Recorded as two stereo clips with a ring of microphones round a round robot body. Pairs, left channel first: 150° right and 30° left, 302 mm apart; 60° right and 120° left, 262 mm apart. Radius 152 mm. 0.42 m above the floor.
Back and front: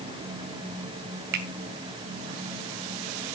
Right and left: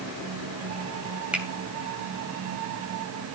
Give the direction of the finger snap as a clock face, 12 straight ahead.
11 o'clock.